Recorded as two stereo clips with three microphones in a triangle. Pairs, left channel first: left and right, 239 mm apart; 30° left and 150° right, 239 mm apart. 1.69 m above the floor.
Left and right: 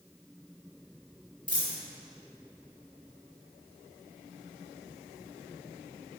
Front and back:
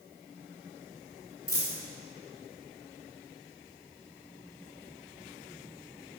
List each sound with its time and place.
1.5 s a dropped coin: 105° left, 1.8 m